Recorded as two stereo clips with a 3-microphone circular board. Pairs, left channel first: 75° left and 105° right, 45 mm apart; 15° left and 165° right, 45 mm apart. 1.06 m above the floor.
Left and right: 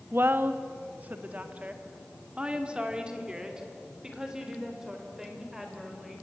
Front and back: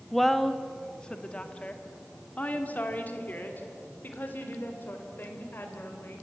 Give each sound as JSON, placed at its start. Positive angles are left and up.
{"t": 0.1, "sound": "a woman speaking", "azimuth_deg": -70, "distance_m": 1.3}